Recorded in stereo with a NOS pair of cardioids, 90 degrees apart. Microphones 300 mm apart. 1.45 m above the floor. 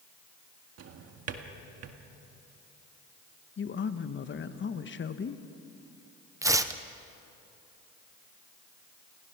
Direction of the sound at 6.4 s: 10° right.